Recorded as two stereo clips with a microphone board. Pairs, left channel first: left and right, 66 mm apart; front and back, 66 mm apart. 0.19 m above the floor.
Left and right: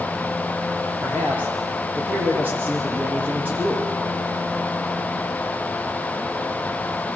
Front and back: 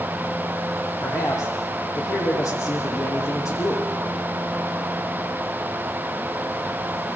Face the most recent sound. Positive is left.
turn(degrees=-30)